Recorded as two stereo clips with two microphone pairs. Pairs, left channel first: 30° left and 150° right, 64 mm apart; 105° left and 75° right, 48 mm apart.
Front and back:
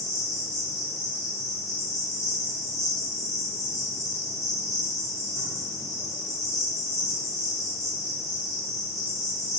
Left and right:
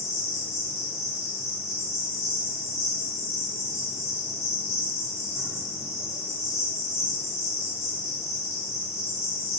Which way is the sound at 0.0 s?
Straight ahead.